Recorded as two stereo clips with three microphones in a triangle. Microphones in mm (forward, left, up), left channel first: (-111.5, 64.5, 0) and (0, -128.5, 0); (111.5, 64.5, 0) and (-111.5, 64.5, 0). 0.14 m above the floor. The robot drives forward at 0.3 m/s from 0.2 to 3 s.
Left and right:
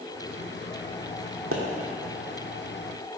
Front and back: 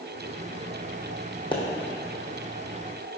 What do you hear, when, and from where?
1.5 s a pop: 65° right, 1.3 m